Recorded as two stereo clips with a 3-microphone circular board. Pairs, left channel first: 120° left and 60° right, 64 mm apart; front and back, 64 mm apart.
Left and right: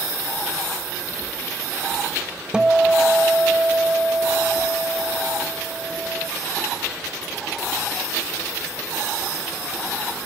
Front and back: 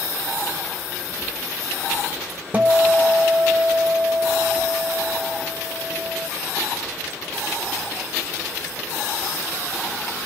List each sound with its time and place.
2.5 s a guitar: 130° right, 0.6 m